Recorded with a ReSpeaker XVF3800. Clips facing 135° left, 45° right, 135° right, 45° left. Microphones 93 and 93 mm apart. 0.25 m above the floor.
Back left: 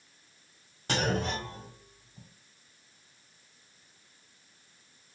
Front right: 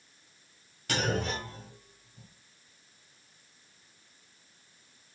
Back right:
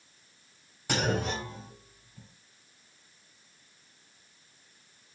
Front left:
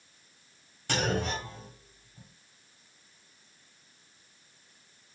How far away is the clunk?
About 1.6 m.